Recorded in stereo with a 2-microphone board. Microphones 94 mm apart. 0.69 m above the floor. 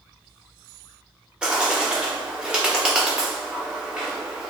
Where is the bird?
10° right (ahead or behind), 1.0 m.